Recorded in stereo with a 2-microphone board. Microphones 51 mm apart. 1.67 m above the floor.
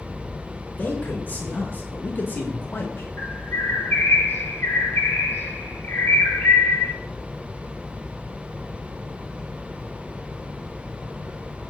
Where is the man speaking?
35° left (ahead or behind), 3 m; by 3.1 s 45° left (ahead or behind), 1.9 m.